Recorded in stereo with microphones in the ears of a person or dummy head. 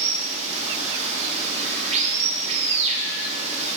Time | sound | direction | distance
0.0 | running water | 40° right (ahead or behind) | 0.9 m